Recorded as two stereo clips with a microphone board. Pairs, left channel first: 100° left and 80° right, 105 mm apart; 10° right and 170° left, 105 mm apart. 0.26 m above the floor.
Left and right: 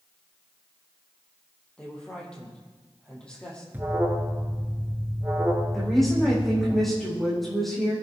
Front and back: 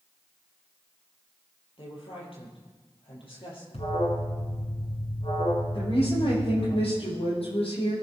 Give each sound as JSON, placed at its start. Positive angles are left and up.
{"t": 1.8, "sound": "a woman speaking", "azimuth_deg": 20, "distance_m": 7.0}
{"t": 3.7, "sound": "an alarm", "azimuth_deg": -10, "distance_m": 2.5}
{"t": 5.7, "sound": "a woman speaking", "azimuth_deg": 15, "distance_m": 9.5}